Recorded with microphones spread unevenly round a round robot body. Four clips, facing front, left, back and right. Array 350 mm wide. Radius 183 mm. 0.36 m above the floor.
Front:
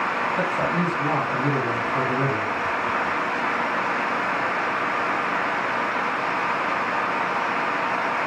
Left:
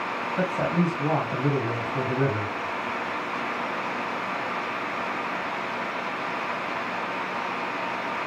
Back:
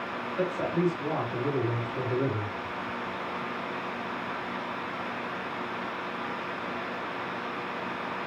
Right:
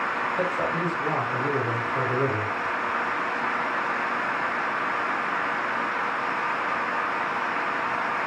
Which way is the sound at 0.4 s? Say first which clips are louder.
Left 4 dB, back 1 dB; 45° left.